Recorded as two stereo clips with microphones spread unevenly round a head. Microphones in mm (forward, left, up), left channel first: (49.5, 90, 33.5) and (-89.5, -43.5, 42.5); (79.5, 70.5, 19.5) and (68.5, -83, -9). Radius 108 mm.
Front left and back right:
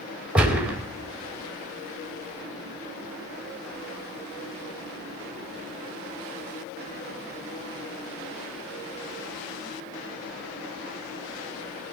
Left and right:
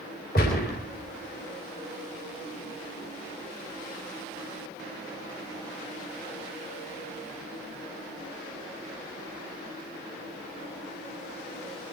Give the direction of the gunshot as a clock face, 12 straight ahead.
7 o'clock.